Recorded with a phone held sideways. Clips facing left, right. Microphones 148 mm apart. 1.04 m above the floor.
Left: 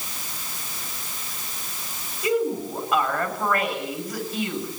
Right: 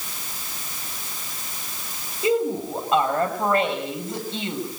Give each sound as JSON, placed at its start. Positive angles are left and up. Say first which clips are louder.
{"t": 2.2, "sound": "a woman speaking", "louder": "right 1 dB", "side_deg": -25, "distance_m": 6.5}